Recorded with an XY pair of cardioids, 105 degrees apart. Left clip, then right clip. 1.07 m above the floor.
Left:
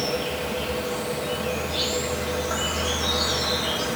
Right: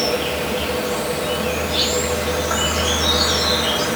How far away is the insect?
About 1.1 m.